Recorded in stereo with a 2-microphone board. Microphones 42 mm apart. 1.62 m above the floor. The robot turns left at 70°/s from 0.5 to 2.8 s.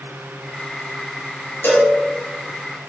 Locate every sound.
1.6 s a cowbell: 65° left (ahead or behind), 1.5 m